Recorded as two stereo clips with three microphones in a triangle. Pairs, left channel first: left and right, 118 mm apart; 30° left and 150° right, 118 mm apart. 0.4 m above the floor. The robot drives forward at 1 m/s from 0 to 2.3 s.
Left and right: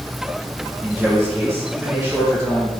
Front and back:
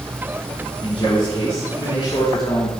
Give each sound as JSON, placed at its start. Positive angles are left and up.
{"t": 0.8, "sound": "a man speaking", "azimuth_deg": 0, "distance_m": 6.0}